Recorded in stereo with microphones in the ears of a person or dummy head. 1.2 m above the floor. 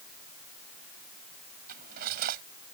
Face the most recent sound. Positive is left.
turn(degrees=-55)  # may be behind; listen again after turning